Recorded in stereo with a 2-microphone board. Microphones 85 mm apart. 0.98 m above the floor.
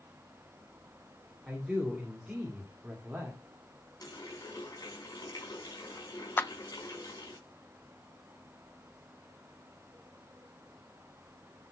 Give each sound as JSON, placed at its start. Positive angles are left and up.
{"t": 1.5, "sound": "a man speaking", "side_deg": 0, "distance_m": 2.5}
{"t": 4.0, "sound": "a running tap", "side_deg": 50, "distance_m": 5.0}
{"t": 6.4, "sound": "a clap", "side_deg": 25, "distance_m": 0.5}